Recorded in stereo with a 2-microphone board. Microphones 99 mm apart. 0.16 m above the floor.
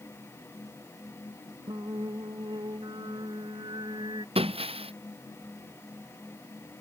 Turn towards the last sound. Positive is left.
turn(degrees=-75)  # may be behind; listen again after turning